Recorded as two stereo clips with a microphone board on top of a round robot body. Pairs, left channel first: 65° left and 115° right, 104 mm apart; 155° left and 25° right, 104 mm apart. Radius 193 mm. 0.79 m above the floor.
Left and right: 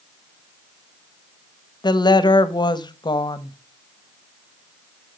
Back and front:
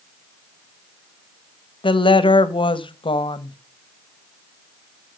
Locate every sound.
1.8 s a woman speaking: 115° left, 1.0 m